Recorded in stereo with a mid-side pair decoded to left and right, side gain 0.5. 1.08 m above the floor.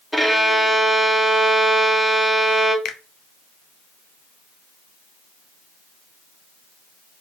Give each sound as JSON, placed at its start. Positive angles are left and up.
{"t": 0.1, "sound": "a violin", "azimuth_deg": 0, "distance_m": 1.3}
{"t": 2.9, "sound": "a finger snap", "azimuth_deg": 65, "distance_m": 0.7}